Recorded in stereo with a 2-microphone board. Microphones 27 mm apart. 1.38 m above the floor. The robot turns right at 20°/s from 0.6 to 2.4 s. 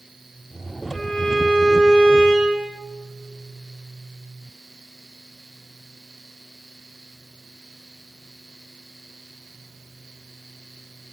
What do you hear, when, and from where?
0.9 s a violin: 35° left (ahead or behind), 1.2 m; by 2.7 s 10° left (ahead or behind), 1.2 m